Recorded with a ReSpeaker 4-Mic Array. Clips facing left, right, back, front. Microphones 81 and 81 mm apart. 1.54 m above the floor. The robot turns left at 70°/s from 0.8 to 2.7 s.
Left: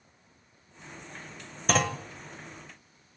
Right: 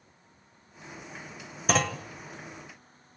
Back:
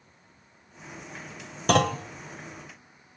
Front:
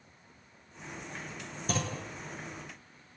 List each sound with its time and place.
1.7 s a clunk: 175° right, 0.9 m; by 2.0 s 160° left, 0.9 m